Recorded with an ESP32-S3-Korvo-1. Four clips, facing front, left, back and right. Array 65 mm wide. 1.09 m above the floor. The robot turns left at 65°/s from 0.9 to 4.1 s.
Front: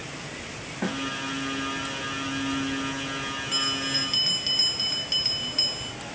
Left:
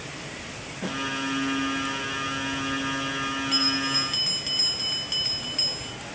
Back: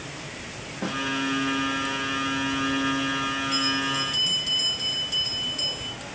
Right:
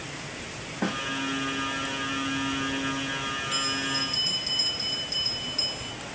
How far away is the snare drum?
About 2 m.